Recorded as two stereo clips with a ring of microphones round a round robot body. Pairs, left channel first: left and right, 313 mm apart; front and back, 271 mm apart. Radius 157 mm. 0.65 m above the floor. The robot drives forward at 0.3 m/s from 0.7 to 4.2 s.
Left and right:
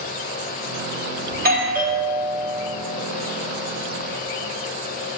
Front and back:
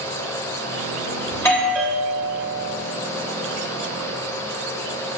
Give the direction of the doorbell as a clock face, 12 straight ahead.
2 o'clock.